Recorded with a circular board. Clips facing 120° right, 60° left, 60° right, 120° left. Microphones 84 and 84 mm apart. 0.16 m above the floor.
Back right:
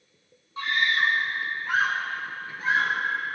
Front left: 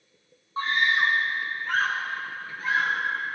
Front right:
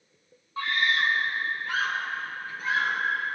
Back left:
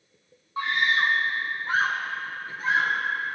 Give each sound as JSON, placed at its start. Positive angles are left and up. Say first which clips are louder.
{"t": 0.6, "sound": "a scream", "louder": "front left 1 dB, back left 2 dB", "azimuth_deg": 65, "distance_m": 1.7}